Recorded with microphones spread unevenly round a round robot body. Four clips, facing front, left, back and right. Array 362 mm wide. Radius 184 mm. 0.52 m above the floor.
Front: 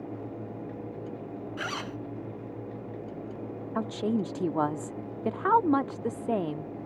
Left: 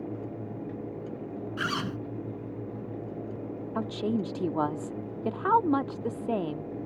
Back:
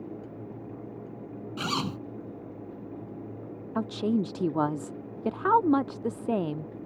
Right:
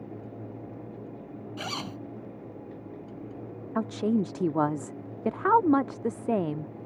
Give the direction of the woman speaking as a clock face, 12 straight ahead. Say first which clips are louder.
Right 3 dB, back 2 dB; 4 o'clock.